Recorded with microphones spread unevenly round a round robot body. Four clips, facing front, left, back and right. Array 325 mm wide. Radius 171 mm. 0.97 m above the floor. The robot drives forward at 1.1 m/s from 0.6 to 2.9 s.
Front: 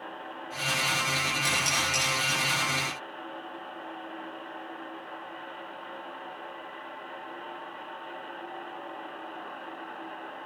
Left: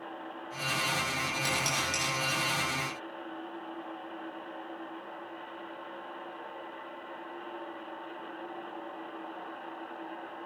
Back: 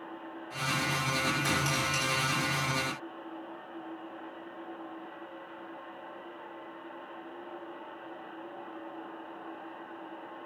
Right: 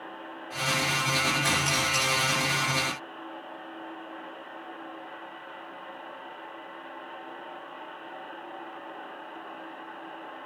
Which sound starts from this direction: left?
Dishes clattering, at 1.4 s.